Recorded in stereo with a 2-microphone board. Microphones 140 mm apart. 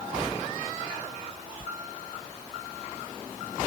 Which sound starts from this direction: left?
A sliding door, at 1.6 s.